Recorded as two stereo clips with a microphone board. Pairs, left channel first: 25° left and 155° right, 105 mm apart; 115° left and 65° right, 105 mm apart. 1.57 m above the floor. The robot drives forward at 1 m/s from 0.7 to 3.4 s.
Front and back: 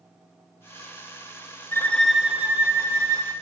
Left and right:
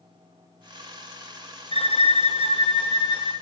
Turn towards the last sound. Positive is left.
turn(degrees=150)